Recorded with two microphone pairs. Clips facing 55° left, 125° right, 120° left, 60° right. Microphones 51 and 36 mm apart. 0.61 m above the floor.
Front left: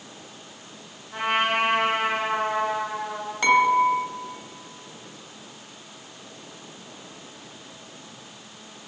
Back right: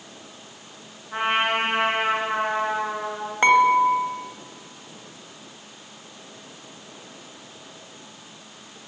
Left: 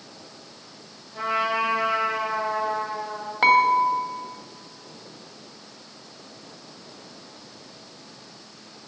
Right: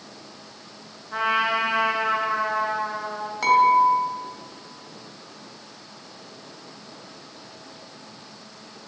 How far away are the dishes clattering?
About 2 m.